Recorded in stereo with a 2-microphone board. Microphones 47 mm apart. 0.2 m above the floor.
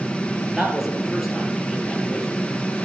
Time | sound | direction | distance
0.6 | a man speaking | 15° right (ahead or behind) | 4.5 m